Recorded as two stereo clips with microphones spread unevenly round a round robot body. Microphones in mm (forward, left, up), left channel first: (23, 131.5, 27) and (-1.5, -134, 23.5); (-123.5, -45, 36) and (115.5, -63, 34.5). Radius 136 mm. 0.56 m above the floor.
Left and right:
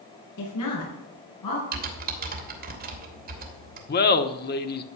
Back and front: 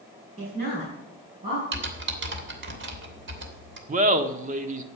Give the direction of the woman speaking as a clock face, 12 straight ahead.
10 o'clock.